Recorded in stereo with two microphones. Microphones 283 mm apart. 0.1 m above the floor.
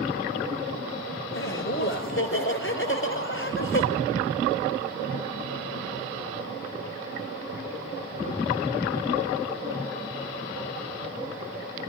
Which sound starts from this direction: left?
Laughter, at 1.3 s.